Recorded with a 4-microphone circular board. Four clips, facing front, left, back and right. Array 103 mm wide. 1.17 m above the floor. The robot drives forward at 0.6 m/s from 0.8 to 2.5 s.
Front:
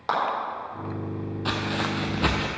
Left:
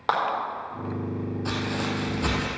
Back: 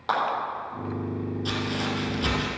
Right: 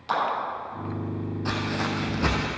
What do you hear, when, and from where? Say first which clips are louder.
0.1 s a clap: left 2 dB, even; 80° left, 3.5 m
1.4 s footsteps: right 2 dB, front 4 dB; 5° right, 1.5 m; by 2.5 s 15° right, 1.5 m